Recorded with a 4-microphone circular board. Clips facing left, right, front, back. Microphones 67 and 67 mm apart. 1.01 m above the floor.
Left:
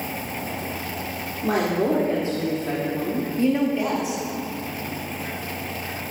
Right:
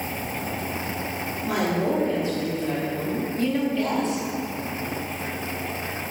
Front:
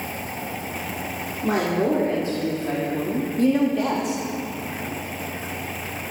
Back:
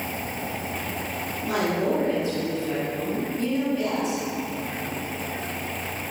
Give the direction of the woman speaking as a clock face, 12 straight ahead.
10 o'clock.